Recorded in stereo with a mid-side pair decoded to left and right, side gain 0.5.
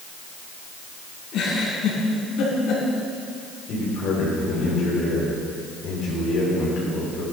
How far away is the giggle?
About 4 m.